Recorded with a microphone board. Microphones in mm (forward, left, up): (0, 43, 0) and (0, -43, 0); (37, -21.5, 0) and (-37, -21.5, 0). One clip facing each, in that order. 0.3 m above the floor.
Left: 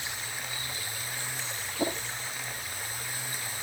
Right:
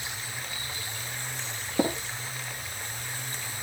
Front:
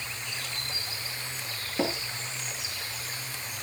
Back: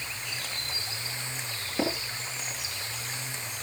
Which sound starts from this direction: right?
Tapping, at 1.8 s.